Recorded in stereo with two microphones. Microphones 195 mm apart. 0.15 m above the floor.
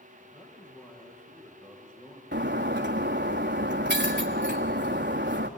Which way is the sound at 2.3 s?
65° right (ahead or behind).